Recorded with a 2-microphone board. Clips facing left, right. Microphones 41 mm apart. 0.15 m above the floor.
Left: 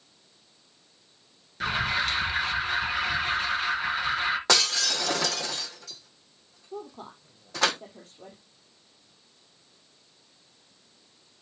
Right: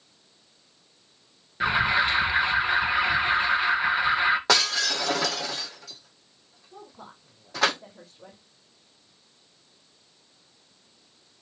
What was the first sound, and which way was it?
An alarm, 20° right (ahead or behind).